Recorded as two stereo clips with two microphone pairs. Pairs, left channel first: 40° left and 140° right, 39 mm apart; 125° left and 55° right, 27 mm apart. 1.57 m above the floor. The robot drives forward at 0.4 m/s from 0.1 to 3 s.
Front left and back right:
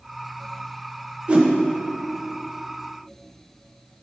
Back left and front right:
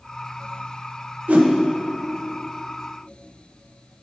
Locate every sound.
1.3 s a whoosh: 80° right, 1.0 m; by 1.5 s 85° right, 1.0 m